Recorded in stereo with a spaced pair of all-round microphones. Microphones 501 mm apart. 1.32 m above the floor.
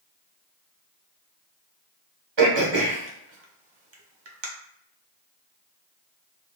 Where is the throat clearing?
60° right (ahead or behind), 0.9 m.